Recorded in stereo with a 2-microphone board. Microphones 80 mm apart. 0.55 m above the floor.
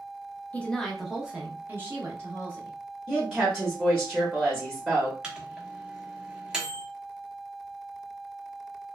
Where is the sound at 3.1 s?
10° right (ahead or behind), 1.0 m.